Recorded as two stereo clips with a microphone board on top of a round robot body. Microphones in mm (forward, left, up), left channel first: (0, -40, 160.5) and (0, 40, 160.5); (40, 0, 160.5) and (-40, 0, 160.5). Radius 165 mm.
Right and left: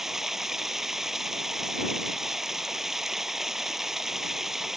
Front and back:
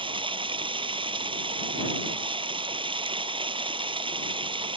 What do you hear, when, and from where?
0.0 s running water: 175° left